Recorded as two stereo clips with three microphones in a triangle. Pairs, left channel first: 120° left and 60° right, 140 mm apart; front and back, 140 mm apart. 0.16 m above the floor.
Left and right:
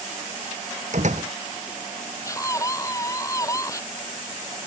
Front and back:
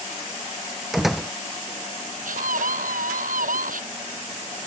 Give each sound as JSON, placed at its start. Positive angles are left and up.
{"t": 0.9, "sound": "a door slam", "azimuth_deg": -90}
{"t": 2.2, "sound": "a scream", "azimuth_deg": -175}